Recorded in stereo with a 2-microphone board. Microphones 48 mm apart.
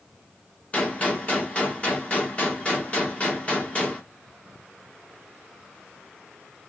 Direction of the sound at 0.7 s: 25° left (ahead or behind).